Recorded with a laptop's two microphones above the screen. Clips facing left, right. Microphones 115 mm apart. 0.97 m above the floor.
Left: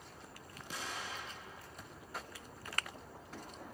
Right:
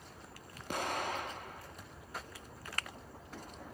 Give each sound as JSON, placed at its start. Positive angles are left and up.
{"t": 0.7, "sound": "an explosion", "side_deg": -60, "distance_m": 0.7}